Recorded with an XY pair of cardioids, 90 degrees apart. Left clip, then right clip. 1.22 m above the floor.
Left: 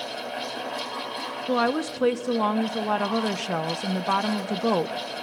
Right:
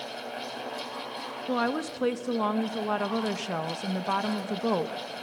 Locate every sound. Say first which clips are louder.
0.0 s a fan: left 5 dB; 30° left, 3.5 m
1.5 s a woman speaking: left 5 dB; 25° left, 1.0 m